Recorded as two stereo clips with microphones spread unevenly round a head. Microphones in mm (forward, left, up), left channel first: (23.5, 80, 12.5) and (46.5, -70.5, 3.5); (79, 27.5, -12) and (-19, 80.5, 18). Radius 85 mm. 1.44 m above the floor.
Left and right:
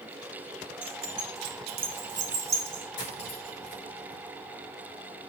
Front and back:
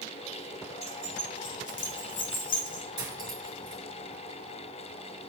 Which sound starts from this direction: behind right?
Keys jangling, at 0.8 s.